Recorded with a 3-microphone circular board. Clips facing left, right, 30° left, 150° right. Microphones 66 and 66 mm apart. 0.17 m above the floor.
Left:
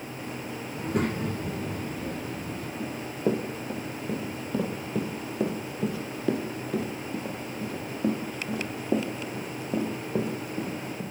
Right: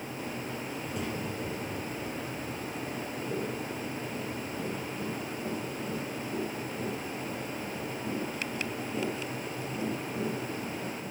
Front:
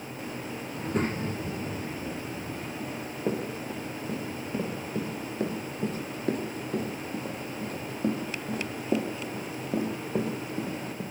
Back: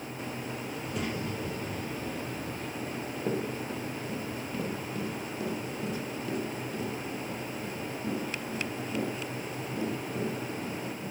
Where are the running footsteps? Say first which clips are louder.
Left 7 dB, front 2 dB; 110° left, 4 m; by 11.0 s 55° left, 5.5 m.